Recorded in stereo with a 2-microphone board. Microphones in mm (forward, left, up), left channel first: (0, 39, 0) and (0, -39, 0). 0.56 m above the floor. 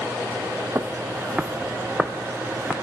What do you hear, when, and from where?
0.8 s footsteps: 35° right (ahead or behind), 0.9 m; by 2.7 s 5° left (ahead or behind), 2.5 m